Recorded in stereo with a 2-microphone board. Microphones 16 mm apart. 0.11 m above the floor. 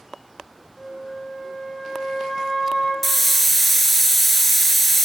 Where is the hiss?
15° left (ahead or behind), 1.3 m.